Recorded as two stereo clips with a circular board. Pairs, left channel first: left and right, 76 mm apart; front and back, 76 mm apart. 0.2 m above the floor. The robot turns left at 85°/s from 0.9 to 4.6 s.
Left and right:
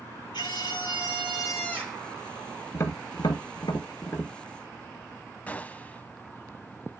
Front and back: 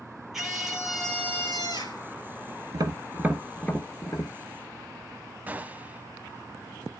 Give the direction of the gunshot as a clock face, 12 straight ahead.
7 o'clock.